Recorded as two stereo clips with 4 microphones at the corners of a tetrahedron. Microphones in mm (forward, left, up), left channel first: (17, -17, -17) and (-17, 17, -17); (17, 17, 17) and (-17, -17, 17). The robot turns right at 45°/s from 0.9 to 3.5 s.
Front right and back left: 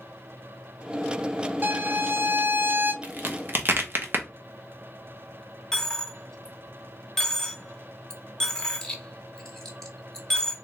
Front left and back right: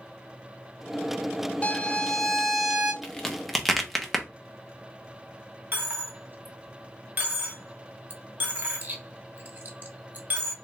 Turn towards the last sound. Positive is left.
turn(degrees=-115)